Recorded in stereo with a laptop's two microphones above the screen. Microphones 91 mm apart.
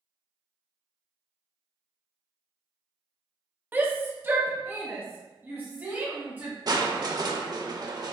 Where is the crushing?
45° right (ahead or behind), 0.6 m.